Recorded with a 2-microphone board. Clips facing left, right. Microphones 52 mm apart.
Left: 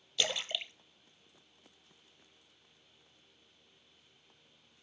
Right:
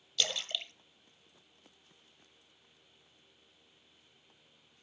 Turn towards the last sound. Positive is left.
turn(degrees=20)  # may be behind; listen again after turning